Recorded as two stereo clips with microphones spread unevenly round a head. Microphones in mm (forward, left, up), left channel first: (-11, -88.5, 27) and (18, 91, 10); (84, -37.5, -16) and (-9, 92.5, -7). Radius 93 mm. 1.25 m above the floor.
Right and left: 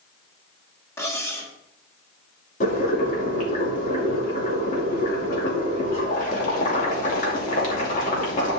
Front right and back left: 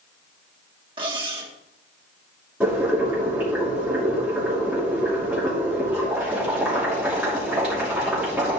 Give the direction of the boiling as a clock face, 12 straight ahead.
5 o'clock.